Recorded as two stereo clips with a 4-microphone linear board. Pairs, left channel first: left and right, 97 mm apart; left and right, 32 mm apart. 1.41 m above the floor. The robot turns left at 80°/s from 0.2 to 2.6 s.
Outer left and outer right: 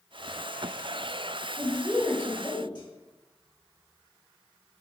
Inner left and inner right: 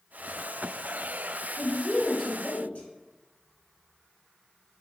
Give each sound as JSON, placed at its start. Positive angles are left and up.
{"t": 1.6, "sound": "a woman speaking", "azimuth_deg": -145, "distance_m": 1.2}